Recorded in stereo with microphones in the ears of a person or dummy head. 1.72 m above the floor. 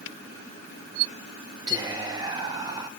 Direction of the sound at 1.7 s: 20° right (ahead or behind).